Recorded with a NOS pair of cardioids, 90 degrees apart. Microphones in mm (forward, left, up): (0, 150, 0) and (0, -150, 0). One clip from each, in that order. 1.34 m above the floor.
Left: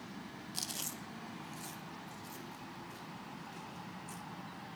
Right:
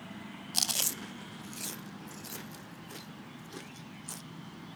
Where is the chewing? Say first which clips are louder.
Right 11 dB; 55° right, 0.8 m.